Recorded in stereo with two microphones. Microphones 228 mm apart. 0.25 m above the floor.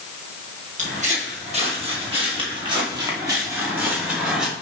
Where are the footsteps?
35° right (ahead or behind), 4 m; by 4.5 s 5° right (ahead or behind), 3 m.